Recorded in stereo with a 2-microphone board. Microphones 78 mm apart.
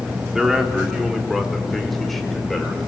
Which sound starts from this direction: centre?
A man speaking, at 0.3 s.